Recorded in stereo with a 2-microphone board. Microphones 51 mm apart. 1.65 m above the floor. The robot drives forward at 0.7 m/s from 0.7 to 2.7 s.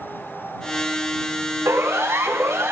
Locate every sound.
1.6 s a siren: 85° right, 4 m; by 2.7 s 80° right, 4 m